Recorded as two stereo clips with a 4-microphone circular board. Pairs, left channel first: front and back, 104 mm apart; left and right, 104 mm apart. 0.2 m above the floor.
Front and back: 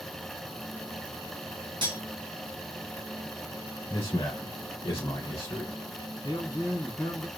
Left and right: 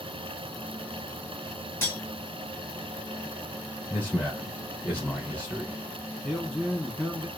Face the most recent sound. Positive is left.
turn(degrees=-5)